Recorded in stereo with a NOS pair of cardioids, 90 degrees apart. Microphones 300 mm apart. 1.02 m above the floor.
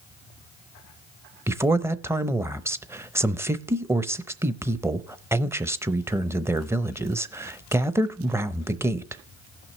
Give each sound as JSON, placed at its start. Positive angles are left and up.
{"t": 1.5, "sound": "a man speaking", "azimuth_deg": -10, "distance_m": 0.7}